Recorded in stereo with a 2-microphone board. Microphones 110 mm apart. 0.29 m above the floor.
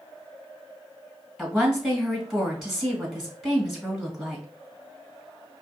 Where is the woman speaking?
Centre (ahead or behind), 1.9 m.